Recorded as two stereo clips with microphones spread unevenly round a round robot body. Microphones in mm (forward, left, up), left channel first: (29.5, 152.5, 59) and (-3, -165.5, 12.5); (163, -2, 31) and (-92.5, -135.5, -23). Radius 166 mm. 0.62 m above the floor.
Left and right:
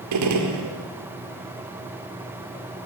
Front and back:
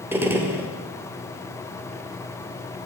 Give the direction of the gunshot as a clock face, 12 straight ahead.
3 o'clock.